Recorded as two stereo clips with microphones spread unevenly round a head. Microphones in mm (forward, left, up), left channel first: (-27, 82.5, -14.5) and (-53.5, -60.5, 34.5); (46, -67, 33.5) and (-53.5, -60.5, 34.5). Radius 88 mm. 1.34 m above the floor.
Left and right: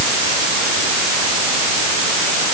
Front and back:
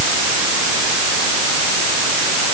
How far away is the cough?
I don't hear a cough.